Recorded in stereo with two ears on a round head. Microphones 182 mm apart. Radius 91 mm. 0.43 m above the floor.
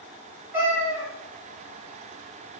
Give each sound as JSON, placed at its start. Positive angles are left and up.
{"t": 0.5, "sound": "a cat meowing", "side_deg": -10, "distance_m": 2.0}